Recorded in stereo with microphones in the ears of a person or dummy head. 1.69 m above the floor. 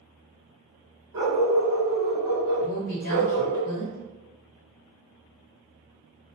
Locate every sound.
1.1 s a dog barking: 15° right (ahead or behind), 1.7 m
2.6 s a woman speaking: 45° left (ahead or behind), 1.7 m